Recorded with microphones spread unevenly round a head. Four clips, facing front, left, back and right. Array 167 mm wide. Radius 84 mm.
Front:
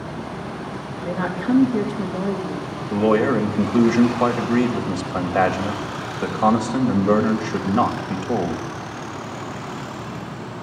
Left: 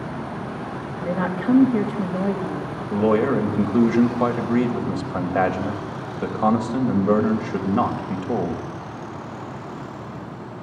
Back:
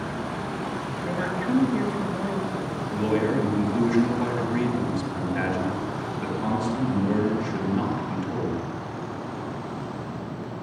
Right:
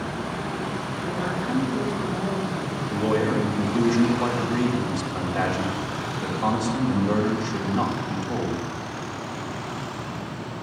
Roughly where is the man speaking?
Ahead left.